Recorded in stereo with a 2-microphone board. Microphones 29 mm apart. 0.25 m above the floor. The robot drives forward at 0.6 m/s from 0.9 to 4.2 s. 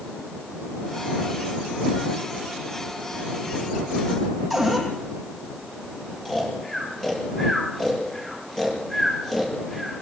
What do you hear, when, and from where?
4.5 s a cupboard door: 10° left (ahead or behind), 5 m
6.2 s snoring: 20° left (ahead or behind), 6.5 m